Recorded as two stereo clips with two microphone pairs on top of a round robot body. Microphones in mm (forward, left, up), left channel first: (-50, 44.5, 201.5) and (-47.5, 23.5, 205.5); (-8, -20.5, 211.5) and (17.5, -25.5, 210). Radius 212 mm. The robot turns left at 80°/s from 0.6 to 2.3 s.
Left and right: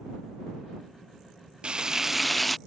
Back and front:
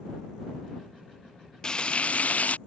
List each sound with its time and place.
1.6 s frying: 130° right; by 2.6 s 175° left